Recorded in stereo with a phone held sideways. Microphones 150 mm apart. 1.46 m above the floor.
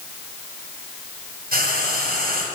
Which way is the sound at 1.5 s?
85° right.